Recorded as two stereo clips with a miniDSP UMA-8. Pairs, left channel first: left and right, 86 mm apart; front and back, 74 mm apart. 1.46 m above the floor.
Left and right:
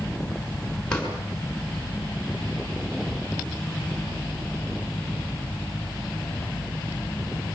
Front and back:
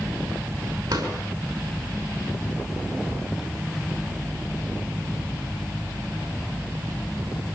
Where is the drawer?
170° left, 6 m.